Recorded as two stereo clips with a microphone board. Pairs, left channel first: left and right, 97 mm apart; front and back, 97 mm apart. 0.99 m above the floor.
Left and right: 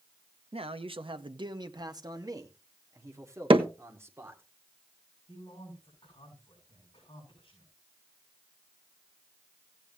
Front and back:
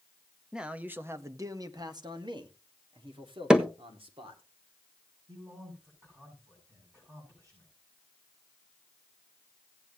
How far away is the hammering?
About 1.3 m.